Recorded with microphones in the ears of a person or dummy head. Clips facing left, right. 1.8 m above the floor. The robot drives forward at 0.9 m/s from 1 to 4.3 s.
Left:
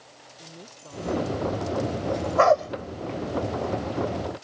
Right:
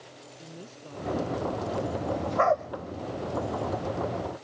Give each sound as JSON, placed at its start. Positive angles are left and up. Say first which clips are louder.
{"t": 0.4, "sound": "a woman speaking", "louder": "right 1 dB", "side_deg": -5}
{"t": 2.4, "sound": "a dog barking", "louder": "left 6 dB", "side_deg": 55}